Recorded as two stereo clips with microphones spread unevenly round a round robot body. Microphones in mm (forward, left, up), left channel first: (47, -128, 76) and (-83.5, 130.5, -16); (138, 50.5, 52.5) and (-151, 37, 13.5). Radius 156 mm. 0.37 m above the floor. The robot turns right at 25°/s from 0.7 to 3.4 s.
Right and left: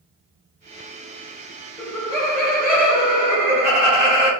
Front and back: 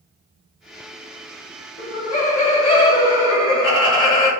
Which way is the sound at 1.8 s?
35° left.